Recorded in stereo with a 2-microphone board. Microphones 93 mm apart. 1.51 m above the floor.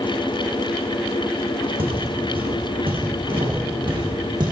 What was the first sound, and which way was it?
Footsteps, 65° right (ahead or behind).